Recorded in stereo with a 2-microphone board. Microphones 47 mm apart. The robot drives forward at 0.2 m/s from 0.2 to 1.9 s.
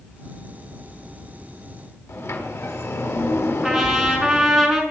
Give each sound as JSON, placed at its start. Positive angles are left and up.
{"t": 2.1, "sound": "a sliding door", "side_deg": 75, "distance_m": 4.5}
{"t": 3.6, "sound": "a trumpet", "side_deg": -5, "distance_m": 5.0}